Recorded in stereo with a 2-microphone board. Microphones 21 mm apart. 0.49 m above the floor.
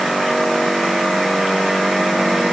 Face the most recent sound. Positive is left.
No sound to turn to.